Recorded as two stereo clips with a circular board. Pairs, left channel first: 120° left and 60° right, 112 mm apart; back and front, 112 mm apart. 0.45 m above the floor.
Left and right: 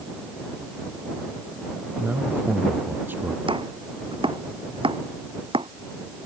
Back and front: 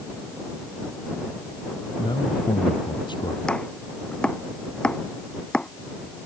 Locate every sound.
2.0 s a man speaking: 135° right; by 3.4 s 130° right
3.5 s chopping: 100° right